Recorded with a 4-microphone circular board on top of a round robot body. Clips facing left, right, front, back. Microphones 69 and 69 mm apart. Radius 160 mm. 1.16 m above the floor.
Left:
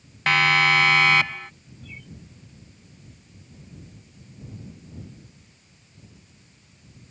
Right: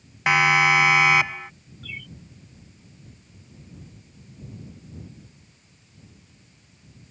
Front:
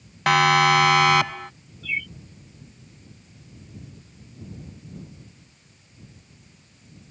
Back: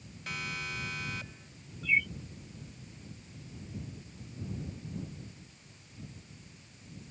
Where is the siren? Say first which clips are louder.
Right 1 dB, front 23 dB; 15° right.